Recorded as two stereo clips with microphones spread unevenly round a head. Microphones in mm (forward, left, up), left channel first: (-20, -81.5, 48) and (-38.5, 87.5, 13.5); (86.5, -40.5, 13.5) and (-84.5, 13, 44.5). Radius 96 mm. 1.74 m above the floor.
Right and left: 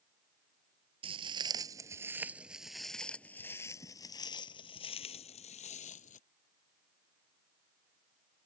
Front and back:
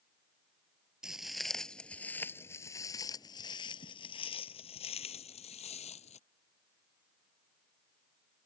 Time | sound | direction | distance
1.0 | footsteps | 120° left | ?